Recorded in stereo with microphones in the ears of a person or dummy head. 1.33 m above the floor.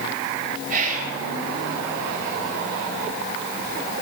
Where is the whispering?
45° right (ahead or behind), 1.1 m.